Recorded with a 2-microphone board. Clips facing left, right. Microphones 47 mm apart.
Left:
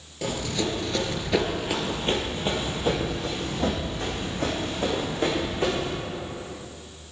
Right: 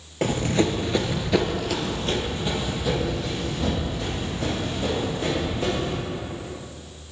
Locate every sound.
0.2 s running footsteps: 45° right (ahead or behind), 1.0 m; by 5.9 s 45° left (ahead or behind), 4 m